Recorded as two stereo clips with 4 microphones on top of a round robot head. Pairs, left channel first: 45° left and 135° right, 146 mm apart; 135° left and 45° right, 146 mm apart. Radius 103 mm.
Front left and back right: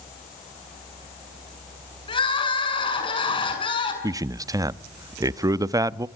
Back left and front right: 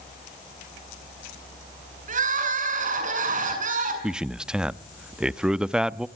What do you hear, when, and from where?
2.1 s crying: 10° right, 7 m
4.0 s a man speaking: 120° right, 0.7 m